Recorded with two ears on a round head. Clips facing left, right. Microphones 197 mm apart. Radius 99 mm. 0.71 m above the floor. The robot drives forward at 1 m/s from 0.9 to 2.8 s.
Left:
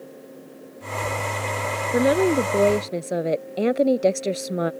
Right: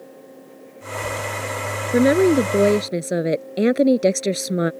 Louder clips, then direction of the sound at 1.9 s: Right 4 dB; 30° right (ahead or behind).